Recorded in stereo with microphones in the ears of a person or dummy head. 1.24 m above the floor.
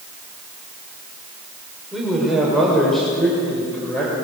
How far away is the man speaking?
About 5.5 m.